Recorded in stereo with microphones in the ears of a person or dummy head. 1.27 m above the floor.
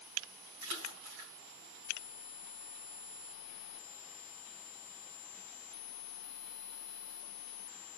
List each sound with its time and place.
0.6 s a splash: 75° right (ahead or behind), 3.5 m